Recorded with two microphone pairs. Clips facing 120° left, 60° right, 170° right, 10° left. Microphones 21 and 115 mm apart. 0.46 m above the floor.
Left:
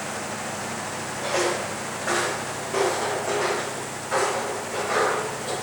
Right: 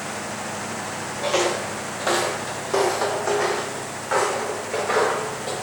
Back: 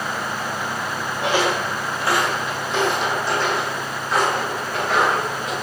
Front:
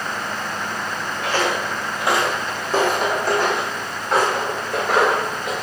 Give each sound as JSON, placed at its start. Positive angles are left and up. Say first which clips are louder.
{"t": 1.2, "sound": "footsteps", "louder": "right 3 dB, back 2 dB", "azimuth_deg": -110, "distance_m": 0.6}